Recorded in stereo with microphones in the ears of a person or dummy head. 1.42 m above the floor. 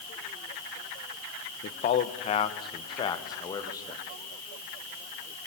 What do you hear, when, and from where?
1.6 s a man speaking: 40° left (ahead or behind), 1.5 m; by 4.0 s 15° left (ahead or behind), 2.5 m